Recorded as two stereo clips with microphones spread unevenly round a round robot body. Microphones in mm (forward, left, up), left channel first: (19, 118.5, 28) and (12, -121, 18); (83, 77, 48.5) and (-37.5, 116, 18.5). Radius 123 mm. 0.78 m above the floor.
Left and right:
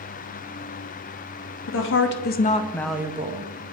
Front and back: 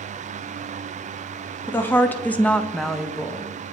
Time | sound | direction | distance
1.7 | a woman speaking | 65° left | 1.0 m